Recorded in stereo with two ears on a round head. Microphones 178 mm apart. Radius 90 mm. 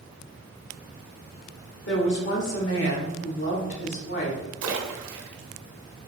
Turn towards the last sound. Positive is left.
turn(degrees=-80)